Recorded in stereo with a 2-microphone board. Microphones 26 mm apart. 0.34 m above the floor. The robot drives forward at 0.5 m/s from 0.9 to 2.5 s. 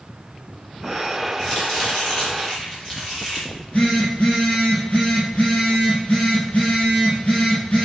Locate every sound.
1.4 s chopping: 30° left (ahead or behind), 3.5 m
3.5 s a phone buzzing: 60° left (ahead or behind), 4 m